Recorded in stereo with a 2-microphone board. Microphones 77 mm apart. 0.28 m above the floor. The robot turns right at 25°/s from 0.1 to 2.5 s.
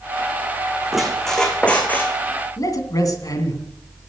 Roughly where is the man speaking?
Left.